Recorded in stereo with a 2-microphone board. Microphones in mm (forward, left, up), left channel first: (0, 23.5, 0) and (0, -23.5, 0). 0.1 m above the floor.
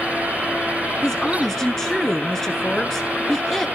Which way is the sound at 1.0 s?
10° left (ahead or behind).